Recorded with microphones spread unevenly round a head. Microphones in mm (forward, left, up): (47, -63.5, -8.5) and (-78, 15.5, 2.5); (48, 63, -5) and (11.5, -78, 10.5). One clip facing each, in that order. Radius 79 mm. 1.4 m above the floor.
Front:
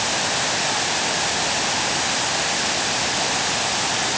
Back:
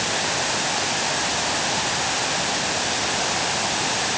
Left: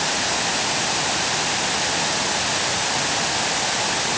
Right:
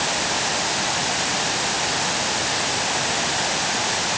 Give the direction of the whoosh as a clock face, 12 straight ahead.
No whoosh in this recording.